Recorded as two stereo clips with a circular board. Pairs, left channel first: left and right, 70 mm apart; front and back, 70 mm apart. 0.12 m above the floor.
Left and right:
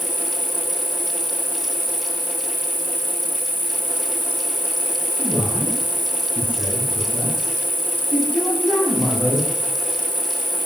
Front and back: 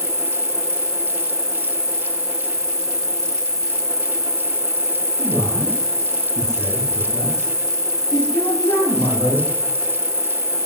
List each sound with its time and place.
0.0 s an insect: 30° right, 1.6 m
5.2 s a man speaking: 20° right, 9.5 m